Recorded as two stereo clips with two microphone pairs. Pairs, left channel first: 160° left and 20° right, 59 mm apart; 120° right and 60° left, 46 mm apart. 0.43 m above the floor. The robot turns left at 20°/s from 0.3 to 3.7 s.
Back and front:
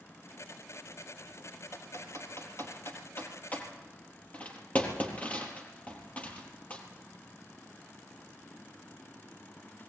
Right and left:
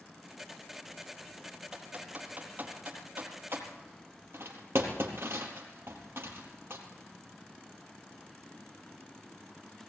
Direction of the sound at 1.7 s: 135° left.